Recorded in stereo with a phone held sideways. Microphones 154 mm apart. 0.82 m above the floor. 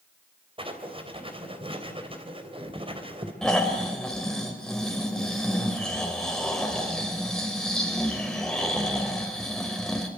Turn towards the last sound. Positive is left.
turn(degrees=5)  # may be behind; listen again after turning